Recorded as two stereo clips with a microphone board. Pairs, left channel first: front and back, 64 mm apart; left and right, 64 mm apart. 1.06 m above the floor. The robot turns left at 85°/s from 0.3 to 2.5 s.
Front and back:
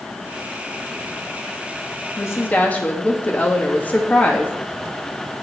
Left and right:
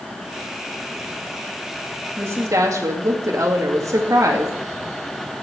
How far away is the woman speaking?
About 1.8 m.